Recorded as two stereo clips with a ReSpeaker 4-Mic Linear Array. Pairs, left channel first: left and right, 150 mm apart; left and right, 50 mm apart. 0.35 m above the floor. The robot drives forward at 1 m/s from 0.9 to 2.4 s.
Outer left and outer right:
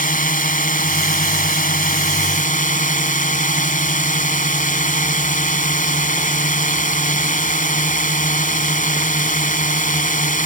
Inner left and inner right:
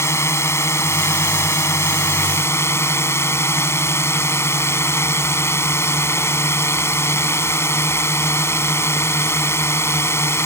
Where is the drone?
65° left (ahead or behind); by 10.5 s 60° left (ahead or behind).